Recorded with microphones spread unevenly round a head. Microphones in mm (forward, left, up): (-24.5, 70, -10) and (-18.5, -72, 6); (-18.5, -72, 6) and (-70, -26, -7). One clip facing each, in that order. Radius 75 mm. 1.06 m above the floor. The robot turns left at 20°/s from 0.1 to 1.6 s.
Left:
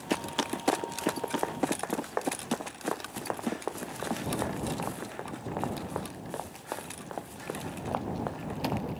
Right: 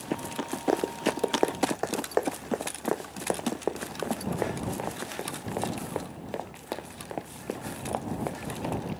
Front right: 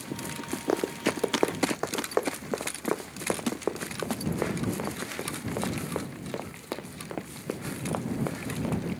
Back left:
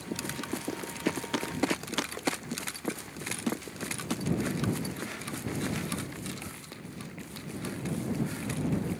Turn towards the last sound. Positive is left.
turn(degrees=-10)